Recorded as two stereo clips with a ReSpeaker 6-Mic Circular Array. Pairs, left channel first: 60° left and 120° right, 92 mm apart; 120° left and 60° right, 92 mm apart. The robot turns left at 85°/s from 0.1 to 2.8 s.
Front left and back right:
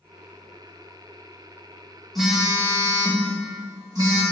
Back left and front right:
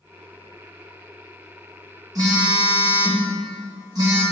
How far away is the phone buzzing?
About 1.6 m.